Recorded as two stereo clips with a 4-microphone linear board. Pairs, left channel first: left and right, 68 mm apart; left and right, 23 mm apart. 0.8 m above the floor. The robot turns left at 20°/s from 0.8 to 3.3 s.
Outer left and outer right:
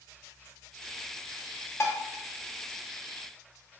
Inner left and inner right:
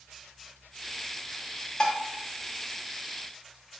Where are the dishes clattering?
40° left (ahead or behind), 0.5 m; by 2.0 s 45° left (ahead or behind), 0.5 m.